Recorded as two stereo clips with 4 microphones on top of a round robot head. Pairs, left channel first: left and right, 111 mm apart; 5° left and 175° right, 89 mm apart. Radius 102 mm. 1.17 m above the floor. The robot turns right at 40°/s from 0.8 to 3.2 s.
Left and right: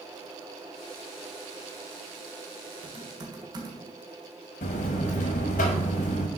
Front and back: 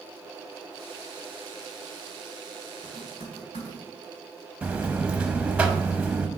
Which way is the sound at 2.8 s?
55° right.